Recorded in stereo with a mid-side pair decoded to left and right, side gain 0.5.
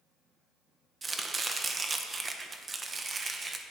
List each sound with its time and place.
1.0 s chopping: 25° right, 1.3 m